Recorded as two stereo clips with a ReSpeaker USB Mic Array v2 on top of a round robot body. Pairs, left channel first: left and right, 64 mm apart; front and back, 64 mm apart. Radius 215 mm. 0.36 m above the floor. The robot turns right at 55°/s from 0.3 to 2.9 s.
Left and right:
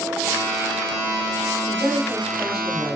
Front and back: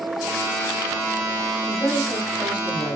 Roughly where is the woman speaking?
Ahead right.